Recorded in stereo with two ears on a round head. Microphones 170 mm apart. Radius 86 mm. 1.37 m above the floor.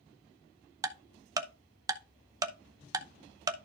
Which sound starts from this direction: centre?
Ticking, at 0.8 s.